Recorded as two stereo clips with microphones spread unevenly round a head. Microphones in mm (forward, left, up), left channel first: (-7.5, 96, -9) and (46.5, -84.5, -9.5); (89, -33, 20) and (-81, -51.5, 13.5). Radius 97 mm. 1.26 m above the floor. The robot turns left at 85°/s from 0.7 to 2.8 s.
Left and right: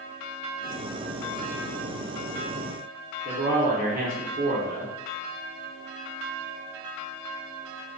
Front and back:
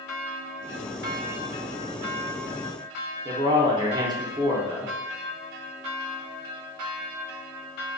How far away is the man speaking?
About 0.6 m.